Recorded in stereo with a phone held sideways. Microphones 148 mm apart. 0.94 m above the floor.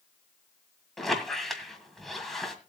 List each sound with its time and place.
1.0 s a squeak: centre (ahead or behind), 2 m